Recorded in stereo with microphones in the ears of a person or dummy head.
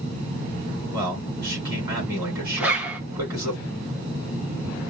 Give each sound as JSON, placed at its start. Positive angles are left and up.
{"t": 0.9, "sound": "a man speaking", "side_deg": -25, "distance_m": 4.5}
{"t": 2.6, "sound": "a zipper", "side_deg": -10, "distance_m": 1.0}